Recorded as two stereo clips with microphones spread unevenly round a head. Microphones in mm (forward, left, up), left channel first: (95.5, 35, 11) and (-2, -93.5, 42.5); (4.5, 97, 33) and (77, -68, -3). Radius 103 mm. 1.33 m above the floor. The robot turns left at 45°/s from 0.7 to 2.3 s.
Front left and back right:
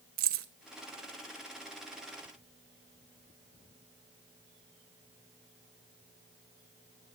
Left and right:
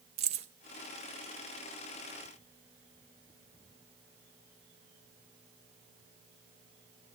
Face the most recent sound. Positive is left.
turn(degrees=155)